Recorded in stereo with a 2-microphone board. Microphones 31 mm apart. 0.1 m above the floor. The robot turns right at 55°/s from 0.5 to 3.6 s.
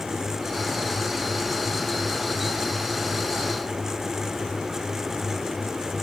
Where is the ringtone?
No ringtone in this recording.